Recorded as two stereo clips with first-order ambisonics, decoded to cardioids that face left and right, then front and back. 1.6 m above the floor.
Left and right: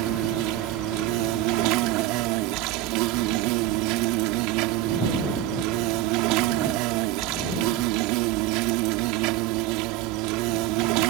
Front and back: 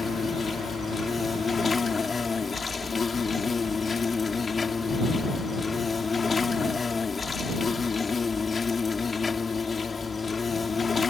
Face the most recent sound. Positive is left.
turn(degrees=-75)